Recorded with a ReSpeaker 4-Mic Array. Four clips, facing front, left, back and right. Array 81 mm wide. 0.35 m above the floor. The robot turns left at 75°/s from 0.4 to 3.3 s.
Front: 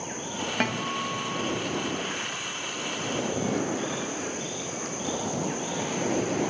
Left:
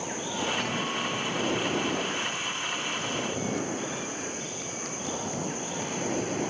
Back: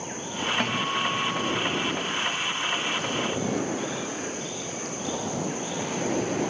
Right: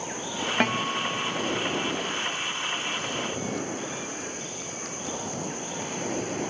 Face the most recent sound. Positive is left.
turn(degrees=80)